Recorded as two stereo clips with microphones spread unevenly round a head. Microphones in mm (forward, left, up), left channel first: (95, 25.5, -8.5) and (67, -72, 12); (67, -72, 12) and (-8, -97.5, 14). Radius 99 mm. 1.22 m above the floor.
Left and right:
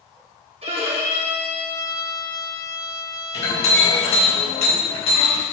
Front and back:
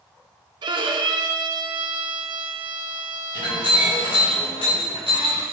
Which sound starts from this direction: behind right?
A violin, at 0.6 s.